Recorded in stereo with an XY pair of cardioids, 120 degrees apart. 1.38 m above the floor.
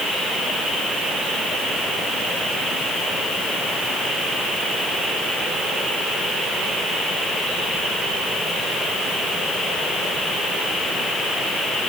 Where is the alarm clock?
No alarm clock in this recording.